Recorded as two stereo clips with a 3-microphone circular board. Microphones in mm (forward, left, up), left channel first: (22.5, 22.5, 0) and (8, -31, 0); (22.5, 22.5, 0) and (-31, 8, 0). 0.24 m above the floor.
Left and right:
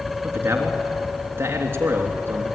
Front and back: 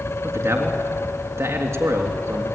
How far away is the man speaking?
About 3.5 m.